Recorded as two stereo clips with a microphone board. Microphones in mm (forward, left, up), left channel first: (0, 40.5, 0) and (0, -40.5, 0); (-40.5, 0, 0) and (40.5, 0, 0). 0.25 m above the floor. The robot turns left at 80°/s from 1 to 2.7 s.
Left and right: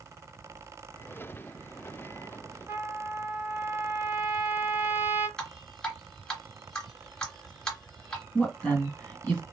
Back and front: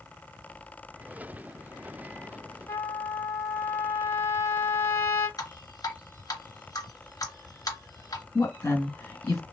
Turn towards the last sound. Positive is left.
turn(degrees=160)